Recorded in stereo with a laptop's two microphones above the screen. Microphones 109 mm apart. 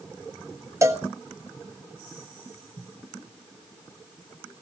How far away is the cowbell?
About 1.4 m.